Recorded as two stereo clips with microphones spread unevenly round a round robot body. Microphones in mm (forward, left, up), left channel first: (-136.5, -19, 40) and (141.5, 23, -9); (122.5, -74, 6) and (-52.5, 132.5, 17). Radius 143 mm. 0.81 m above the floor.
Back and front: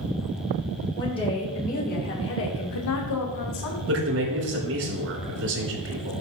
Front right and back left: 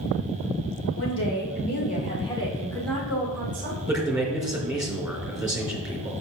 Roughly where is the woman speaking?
Right.